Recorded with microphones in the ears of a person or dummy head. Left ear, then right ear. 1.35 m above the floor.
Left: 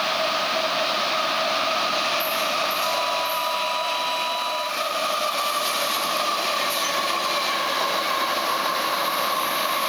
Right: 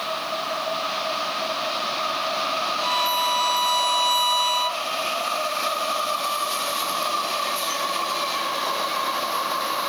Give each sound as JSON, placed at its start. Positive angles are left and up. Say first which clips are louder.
{"t": 2.8, "sound": "a violin", "louder": "right 1 dB", "side_deg": -50}